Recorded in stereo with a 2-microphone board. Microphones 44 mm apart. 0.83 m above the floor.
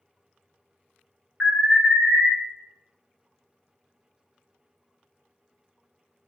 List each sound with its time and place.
1.4 s an alarm: 25° right (ahead or behind), 1.5 m